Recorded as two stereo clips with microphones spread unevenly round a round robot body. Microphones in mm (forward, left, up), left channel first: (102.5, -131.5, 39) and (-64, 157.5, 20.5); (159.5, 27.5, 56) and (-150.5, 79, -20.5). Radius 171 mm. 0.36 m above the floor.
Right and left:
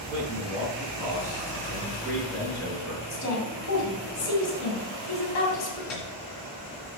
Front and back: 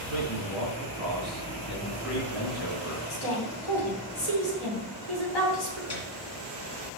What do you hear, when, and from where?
0.1 s a man speaking: 20° left, 3 m; by 3.0 s 35° left, 4.5 m
3.1 s a woman speaking: 20° right, 3.5 m
5.9 s a piano: 15° right, 3 m